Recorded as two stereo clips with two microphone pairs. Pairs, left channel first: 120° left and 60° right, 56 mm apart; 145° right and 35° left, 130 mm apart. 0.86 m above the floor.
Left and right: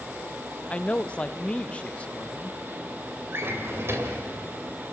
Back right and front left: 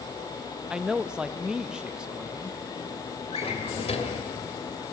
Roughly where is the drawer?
Right.